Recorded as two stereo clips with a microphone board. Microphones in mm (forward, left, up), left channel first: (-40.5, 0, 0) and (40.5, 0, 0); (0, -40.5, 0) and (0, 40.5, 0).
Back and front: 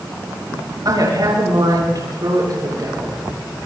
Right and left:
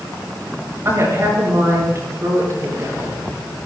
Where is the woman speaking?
35° left, 8 m.